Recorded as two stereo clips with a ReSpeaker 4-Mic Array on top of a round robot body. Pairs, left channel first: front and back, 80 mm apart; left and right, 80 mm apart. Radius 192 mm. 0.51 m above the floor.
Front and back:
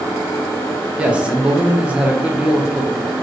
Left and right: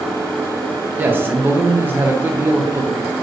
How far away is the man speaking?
About 0.8 m.